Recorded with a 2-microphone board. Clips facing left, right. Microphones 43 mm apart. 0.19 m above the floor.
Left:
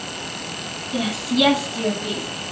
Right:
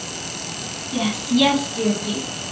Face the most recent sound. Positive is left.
turn(degrees=25)  # may be behind; listen again after turning